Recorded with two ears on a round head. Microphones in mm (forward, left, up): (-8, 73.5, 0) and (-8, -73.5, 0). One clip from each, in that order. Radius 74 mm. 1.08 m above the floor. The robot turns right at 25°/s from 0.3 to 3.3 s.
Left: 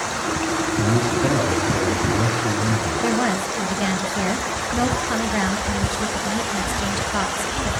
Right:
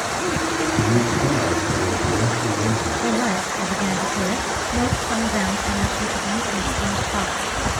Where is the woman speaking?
30° left (ahead or behind), 0.9 m; by 7.7 s 25° left (ahead or behind), 0.9 m.